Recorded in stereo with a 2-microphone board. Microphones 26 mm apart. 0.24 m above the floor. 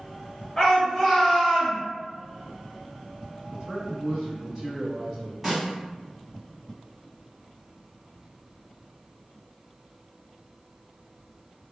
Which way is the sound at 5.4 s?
10° right (ahead or behind).